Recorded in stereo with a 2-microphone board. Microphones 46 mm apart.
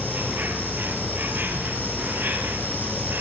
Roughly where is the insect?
Right.